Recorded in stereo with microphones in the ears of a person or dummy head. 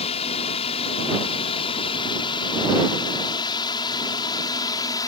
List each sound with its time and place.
0.0 s a drone: 30° left (ahead or behind); by 5.1 s 20° left (ahead or behind)